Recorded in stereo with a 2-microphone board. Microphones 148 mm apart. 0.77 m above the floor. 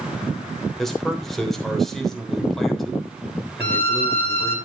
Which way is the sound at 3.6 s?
50° left (ahead or behind).